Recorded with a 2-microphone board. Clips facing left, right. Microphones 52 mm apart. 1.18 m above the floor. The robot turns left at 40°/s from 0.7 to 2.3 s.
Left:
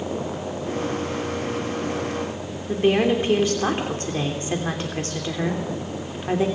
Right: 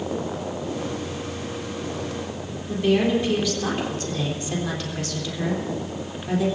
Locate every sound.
2.7 s a woman speaking: 35° left (ahead or behind), 3 m